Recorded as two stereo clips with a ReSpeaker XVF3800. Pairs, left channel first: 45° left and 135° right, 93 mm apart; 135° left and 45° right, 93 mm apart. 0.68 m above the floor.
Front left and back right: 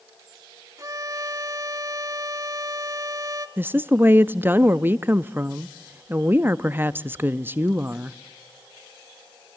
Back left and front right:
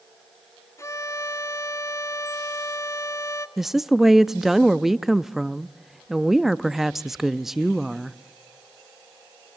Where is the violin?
175° right, 1.0 m.